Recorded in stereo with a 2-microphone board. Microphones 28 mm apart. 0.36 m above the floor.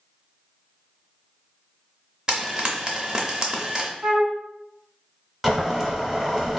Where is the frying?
25° right (ahead or behind), 0.6 m.